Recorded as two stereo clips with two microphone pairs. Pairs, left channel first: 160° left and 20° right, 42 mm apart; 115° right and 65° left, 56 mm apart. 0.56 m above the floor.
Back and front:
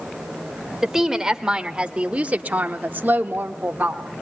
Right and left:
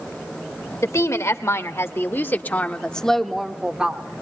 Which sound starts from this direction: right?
A woman speaking, at 0.8 s.